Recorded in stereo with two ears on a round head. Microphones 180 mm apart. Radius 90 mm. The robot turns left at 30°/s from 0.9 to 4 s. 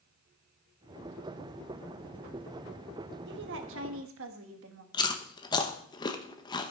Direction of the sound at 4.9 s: 20° left (ahead or behind).